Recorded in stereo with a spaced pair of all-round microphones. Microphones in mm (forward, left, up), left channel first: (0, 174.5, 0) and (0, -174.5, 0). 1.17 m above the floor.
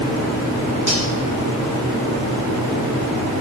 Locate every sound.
0.9 s cutlery clinking: 45° left (ahead or behind), 4 m